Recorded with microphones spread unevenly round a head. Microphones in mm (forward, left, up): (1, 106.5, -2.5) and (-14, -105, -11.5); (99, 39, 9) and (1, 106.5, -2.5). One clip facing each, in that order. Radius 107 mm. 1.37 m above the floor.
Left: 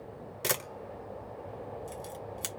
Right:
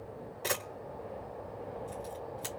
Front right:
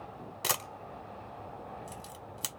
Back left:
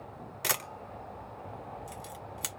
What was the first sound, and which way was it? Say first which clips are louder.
A camera shutter: left 2 dB, even; 30° left.